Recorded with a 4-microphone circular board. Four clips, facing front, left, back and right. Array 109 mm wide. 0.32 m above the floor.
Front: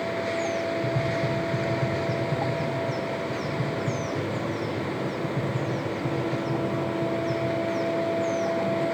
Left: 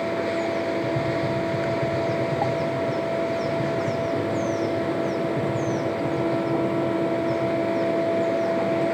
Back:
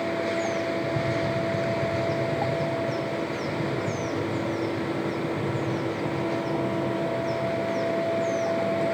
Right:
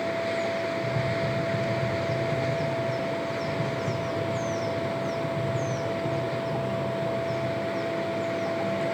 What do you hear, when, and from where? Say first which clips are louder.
0.8 s tapping: left 4 dB, even; 15° left, 5 m